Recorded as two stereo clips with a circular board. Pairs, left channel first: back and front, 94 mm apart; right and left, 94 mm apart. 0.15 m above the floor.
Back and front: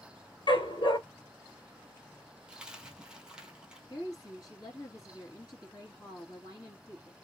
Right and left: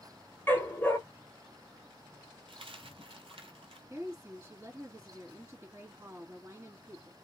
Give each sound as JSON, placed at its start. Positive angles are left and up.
{"t": 0.5, "sound": "a dog barking", "azimuth_deg": -155, "distance_m": 1.0}
{"t": 2.5, "sound": "a dropped coin", "azimuth_deg": 80, "distance_m": 0.9}
{"t": 3.9, "sound": "a woman speaking", "azimuth_deg": 145, "distance_m": 2.0}